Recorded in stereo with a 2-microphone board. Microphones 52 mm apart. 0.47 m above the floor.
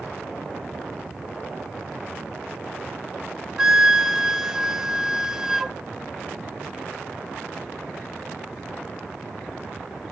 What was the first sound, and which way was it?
A flute, 10° right (ahead or behind).